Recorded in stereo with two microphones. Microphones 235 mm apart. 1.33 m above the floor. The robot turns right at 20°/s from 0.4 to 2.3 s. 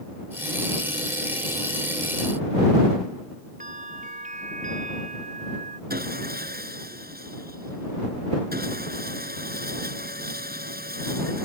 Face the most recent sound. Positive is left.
turn(degrees=-40)  # may be behind; listen again after turning